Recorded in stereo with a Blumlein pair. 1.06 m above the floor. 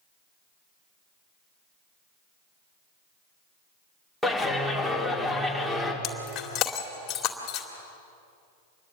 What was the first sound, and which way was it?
A clap, straight ahead.